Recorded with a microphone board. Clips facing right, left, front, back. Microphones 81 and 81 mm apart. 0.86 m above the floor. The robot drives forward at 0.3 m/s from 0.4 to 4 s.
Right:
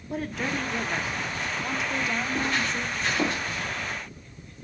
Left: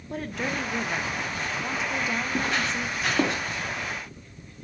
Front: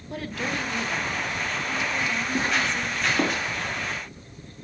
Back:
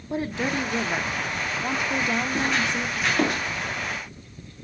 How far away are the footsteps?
About 6 m.